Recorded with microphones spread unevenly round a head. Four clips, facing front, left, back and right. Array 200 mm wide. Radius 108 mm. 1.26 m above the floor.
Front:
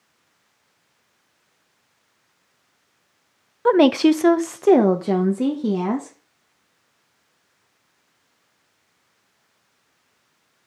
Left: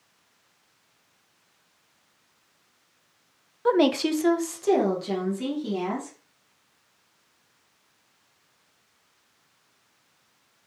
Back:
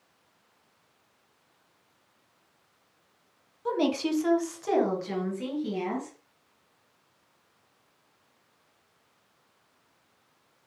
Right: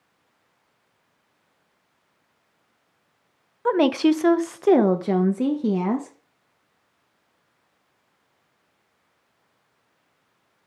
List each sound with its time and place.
3.6 s a woman speaking: 10° left, 0.7 m; by 6.2 s 50° right, 1.5 m